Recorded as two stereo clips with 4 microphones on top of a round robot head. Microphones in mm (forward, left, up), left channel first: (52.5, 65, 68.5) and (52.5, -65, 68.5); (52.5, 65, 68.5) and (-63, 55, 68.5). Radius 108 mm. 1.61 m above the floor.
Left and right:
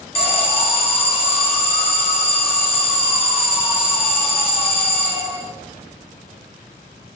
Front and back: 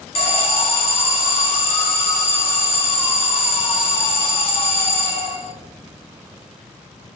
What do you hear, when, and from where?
0.1 s an alarm: 45° left, 0.7 m